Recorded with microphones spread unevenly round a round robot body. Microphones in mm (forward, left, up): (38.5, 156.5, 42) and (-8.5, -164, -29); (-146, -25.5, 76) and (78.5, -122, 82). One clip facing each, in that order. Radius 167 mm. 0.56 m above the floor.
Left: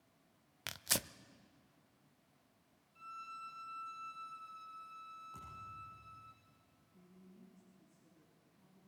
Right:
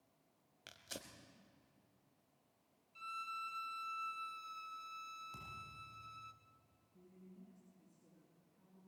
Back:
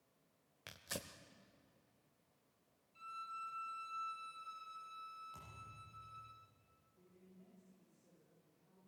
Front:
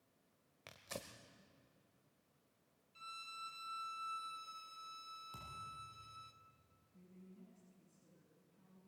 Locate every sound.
0.7 s tearing paper: 75° left, 0.7 m
3.0 s a violin: 55° right, 1.4 m
5.3 s a thud: 55° right, 9 m
6.9 s a man speaking: 5° right, 6.5 m